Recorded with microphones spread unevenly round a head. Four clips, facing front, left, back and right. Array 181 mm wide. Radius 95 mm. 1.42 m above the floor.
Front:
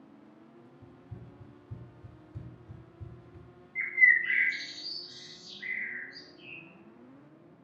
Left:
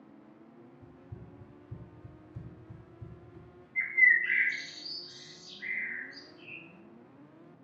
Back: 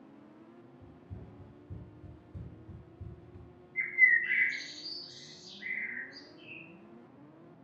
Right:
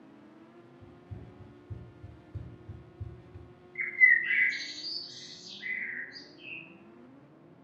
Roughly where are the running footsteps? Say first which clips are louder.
Right 1 dB, front 1 dB; behind.